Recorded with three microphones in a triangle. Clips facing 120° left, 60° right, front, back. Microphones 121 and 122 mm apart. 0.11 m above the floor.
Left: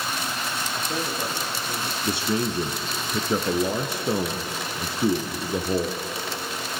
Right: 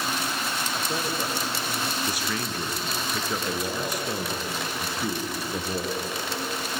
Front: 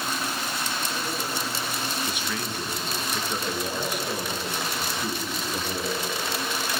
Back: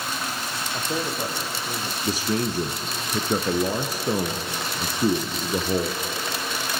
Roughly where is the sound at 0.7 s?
Behind right.